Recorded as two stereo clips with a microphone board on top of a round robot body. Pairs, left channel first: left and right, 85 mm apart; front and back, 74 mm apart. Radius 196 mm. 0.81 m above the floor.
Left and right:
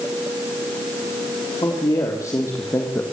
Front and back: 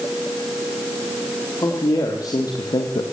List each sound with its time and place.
1.6 s a man speaking: 40° left, 3.5 m; by 3.0 s 20° left, 2.0 m